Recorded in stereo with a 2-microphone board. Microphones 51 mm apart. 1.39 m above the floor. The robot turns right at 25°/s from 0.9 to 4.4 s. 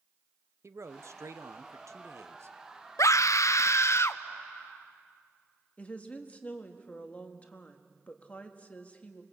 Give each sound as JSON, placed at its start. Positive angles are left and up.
{"t": 0.6, "sound": "a man speaking", "azimuth_deg": -105, "distance_m": 0.8}
{"t": 3.0, "sound": "a scream", "azimuth_deg": 95, "distance_m": 0.6}
{"t": 5.8, "sound": "a woman speaking", "side_deg": 25, "distance_m": 1.9}